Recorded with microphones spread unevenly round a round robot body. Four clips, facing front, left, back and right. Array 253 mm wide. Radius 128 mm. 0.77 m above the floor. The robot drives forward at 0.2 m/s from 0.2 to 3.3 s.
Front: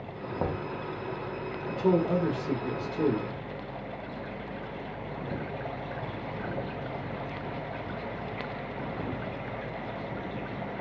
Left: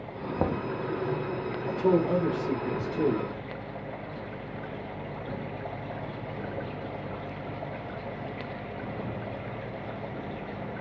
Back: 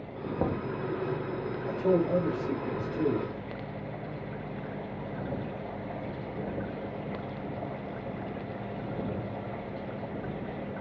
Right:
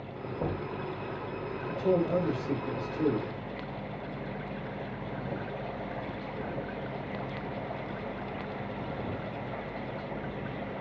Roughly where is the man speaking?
Ahead left.